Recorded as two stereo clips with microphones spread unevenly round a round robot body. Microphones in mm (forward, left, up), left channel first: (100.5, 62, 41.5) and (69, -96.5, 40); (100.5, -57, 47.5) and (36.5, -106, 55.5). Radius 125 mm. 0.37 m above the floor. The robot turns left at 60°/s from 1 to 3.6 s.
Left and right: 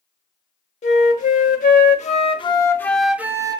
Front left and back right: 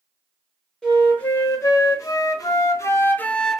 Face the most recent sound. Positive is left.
turn(degrees=-45)